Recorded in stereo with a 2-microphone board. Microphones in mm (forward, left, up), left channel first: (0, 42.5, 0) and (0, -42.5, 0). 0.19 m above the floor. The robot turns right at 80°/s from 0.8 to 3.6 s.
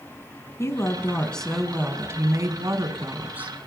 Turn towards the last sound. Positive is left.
turn(degrees=-10)